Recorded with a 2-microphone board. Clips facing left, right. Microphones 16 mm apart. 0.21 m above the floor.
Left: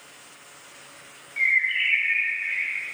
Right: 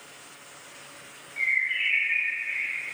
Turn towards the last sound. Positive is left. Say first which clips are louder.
# left 4 dB
turn(degrees=25)  # may be behind; listen again after turning